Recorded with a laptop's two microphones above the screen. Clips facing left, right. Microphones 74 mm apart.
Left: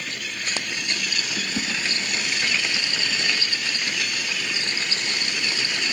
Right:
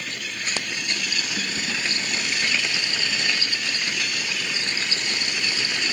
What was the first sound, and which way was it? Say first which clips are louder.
A whoosh: left 3 dB; 75° left (ahead or behind).